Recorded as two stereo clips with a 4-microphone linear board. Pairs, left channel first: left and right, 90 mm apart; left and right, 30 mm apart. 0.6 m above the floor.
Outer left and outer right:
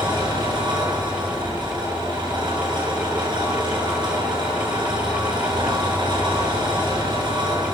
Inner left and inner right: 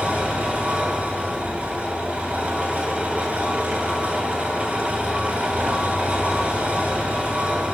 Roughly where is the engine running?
Right.